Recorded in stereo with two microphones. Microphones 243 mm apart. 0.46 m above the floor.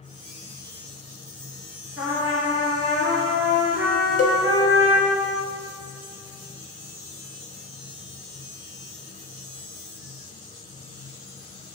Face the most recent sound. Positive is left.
turn(degrees=75)  # may be behind; listen again after turning